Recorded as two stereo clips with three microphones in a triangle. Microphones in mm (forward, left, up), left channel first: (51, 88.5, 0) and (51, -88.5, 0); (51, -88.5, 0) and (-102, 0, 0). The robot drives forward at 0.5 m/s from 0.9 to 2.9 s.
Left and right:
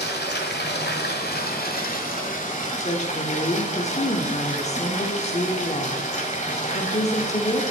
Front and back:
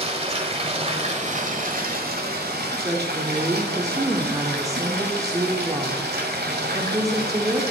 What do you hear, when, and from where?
0.0 s running water: 100° left, 1.3 m; by 7.7 s 135° left, 1.8 m
2.8 s a woman speaking: 85° left, 0.9 m; by 7.6 s 90° left, 0.9 m